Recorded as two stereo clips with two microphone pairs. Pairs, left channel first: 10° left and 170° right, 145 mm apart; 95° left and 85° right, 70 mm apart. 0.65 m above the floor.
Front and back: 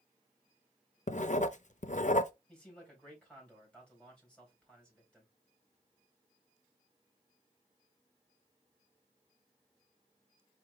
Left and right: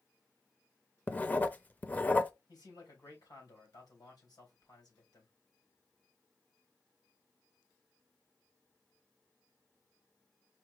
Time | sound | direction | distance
1.1 | writing | 30° left | 0.5 m
2.5 | a man speaking | 90° left | 3.5 m